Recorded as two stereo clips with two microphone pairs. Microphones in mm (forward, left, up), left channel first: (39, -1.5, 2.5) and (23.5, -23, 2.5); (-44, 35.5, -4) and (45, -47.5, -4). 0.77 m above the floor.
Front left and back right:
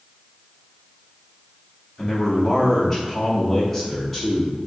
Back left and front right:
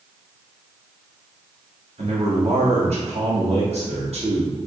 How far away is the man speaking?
About 1.5 m.